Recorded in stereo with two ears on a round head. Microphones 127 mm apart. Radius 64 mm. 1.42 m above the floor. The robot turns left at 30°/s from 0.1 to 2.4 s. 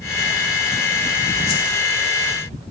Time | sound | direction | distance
1.5 | a whoosh | 85° left | 1.8 m